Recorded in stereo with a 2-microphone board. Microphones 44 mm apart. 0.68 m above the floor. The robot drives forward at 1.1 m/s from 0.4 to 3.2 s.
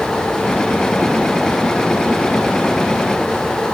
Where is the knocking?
I don't hear knocking.